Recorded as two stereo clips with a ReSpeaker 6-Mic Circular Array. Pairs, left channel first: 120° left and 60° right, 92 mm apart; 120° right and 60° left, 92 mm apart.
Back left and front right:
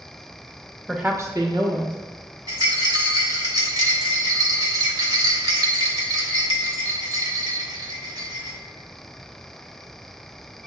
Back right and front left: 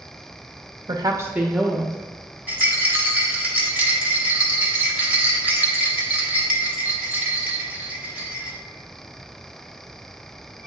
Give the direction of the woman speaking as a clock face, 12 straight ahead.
11 o'clock.